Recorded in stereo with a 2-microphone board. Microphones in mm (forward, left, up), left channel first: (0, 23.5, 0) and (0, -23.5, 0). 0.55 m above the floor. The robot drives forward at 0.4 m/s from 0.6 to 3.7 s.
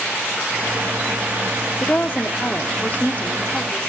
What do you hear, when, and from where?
1.8 s a woman speaking: 40° left (ahead or behind), 0.8 m; by 3.9 s 30° left (ahead or behind), 1.0 m